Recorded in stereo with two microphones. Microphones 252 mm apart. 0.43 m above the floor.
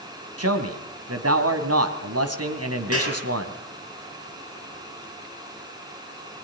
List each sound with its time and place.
0.4 s a man speaking: 75° right (ahead or behind), 3 m
2.9 s a clap: 65° right (ahead or behind), 8 m